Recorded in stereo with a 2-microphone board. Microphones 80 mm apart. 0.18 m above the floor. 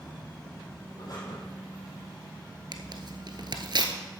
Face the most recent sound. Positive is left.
turn(degrees=-65)  # may be behind; listen again after turning